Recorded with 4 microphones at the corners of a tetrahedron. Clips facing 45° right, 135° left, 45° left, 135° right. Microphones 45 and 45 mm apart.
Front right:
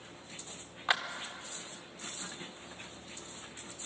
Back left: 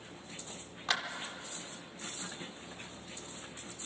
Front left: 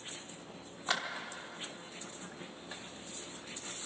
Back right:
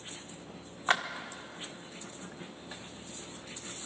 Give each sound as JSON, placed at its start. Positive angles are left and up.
{"t": 0.9, "sound": "a clap", "azimuth_deg": -105, "distance_m": 1.1}